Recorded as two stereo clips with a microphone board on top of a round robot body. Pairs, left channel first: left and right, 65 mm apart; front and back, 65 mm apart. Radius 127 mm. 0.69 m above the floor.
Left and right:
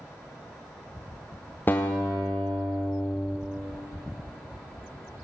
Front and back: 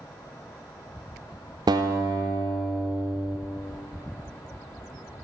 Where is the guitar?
155° left, 0.5 m.